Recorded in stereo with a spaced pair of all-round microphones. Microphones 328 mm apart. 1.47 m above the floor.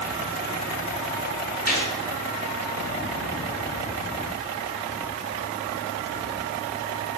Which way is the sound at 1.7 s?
25° left (ahead or behind).